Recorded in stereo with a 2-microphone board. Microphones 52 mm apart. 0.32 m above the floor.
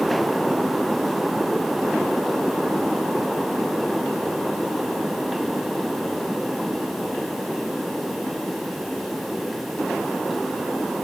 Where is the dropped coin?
No dropped coin in this recording.